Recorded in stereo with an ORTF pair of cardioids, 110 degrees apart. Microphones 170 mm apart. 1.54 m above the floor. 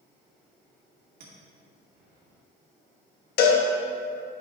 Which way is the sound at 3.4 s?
60° left.